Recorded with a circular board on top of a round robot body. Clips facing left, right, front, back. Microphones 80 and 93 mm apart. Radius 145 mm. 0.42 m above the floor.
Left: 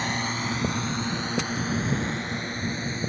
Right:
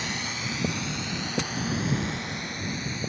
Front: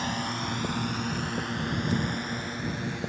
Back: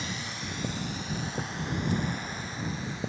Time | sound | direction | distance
0.0 | a drone | 40° left | ?